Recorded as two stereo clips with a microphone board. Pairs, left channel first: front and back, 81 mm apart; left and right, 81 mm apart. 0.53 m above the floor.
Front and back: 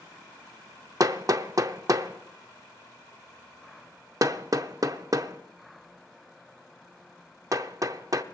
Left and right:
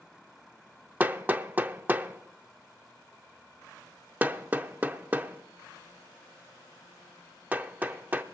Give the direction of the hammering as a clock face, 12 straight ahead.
5 o'clock.